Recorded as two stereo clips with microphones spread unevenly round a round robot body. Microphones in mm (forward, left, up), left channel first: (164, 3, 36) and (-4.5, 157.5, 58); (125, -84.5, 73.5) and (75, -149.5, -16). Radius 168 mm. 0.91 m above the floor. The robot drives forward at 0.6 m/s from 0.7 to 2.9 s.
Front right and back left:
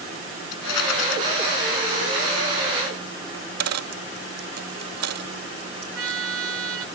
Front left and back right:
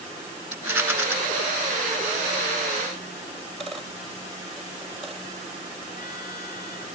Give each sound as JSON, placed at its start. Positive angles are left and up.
{"t": 0.5, "sound": "a rattle", "azimuth_deg": -60}
{"t": 3.3, "sound": "a dropped coin", "azimuth_deg": 135}
{"t": 6.0, "sound": "a trumpet", "azimuth_deg": 120}